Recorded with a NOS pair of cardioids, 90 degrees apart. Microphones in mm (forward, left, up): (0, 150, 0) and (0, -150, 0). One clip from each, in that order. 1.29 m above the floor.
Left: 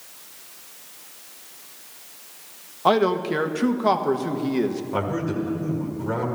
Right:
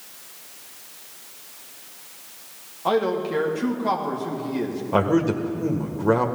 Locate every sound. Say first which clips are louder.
2.9 s a man speaking: left 3 dB; 40° left, 1.4 m
4.9 s a man speaking: right 10 dB; 45° right, 1.8 m